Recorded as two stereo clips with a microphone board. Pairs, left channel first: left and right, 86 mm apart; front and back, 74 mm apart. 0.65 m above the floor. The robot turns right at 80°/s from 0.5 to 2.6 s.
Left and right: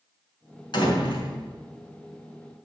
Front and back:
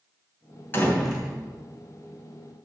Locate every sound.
0.7 s a door slam: 60° left, 2.5 m; by 1.3 s 105° left, 2.5 m